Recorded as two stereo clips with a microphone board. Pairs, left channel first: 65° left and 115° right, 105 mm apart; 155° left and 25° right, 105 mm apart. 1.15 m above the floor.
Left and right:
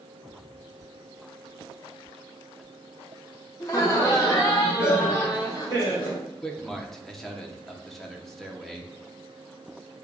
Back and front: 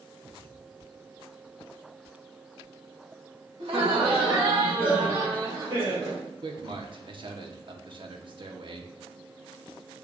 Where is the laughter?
10° left, 1.3 m; by 6.2 s 15° left, 3 m.